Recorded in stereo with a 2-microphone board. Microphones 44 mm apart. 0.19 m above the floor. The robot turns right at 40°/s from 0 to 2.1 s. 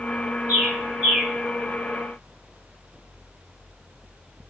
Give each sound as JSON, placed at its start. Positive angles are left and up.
{"t": 0.5, "sound": "a bird", "side_deg": -50, "distance_m": 1.0}